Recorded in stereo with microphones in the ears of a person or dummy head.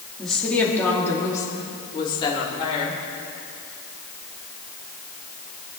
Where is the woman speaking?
Centre (ahead or behind), 2.5 m; by 3.0 s 35° left (ahead or behind), 4 m.